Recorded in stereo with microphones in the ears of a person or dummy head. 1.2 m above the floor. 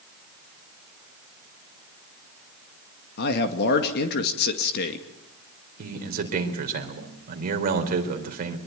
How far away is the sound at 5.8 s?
About 4 m.